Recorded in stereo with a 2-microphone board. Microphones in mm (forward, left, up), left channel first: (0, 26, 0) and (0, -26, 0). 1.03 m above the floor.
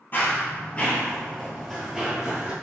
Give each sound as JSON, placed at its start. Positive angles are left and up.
{"t": 0.1, "sound": "running footsteps", "side_deg": 40, "distance_m": 1.3}